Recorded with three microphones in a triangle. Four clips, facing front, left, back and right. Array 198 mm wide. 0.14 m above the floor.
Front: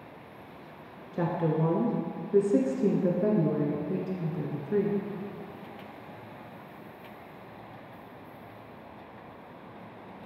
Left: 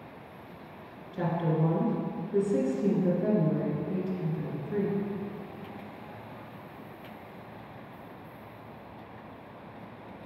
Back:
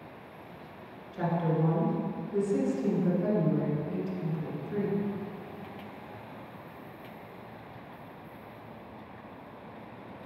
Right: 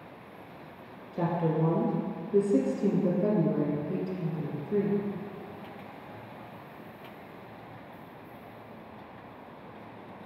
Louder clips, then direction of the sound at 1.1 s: Right 1 dB, front 1 dB; 20° right.